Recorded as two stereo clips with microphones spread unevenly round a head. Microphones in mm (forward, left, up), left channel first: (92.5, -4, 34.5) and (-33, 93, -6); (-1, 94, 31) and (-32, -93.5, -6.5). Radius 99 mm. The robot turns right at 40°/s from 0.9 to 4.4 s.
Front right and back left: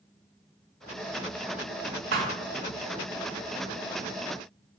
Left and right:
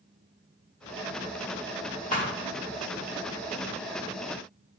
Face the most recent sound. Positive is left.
turn(degrees=-140)